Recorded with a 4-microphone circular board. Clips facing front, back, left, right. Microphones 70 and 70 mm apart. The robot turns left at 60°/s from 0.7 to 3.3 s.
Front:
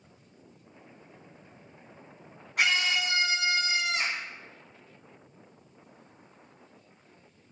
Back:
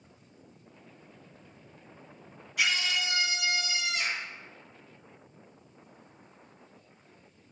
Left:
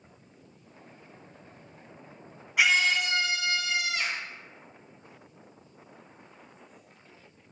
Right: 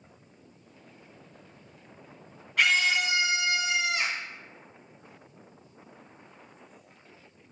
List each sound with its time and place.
2.6 s a scream: 15° left, 2 m; by 4.2 s 30° right, 2 m